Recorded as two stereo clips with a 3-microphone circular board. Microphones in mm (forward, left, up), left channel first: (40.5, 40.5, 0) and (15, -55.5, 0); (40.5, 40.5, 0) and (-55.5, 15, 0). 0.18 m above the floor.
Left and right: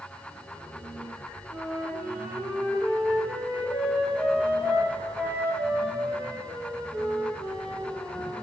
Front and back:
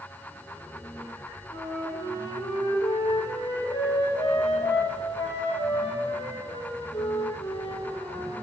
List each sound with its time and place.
1.5 s a flute: 30° right, 2.5 m